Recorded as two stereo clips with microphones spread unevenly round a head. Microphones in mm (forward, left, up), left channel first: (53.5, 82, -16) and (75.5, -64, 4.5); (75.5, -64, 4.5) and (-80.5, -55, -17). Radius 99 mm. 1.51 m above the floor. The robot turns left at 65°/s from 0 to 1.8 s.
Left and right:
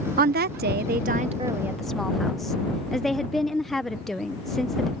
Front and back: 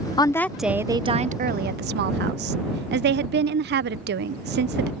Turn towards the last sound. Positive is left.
turn(degrees=-170)